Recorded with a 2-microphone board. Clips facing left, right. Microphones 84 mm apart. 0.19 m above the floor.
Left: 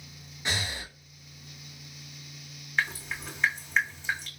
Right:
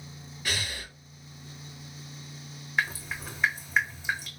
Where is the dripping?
10° right (ahead or behind), 2.0 m.